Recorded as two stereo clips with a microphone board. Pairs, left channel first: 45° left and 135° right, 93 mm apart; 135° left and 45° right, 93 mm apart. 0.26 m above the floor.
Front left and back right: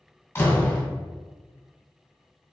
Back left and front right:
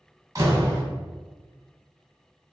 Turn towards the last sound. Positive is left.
turn(degrees=-5)